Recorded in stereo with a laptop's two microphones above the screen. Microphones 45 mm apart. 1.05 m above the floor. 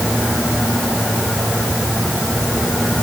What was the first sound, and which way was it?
Only background noise.